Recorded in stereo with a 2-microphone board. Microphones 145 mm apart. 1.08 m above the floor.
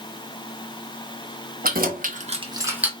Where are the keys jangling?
80° right, 1.0 m; by 2.9 s 5° right (ahead or behind), 1.0 m.